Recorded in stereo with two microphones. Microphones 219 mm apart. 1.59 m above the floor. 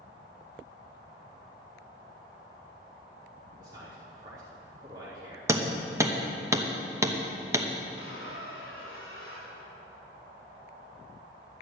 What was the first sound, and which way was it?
A man speaking, 15° right (ahead or behind).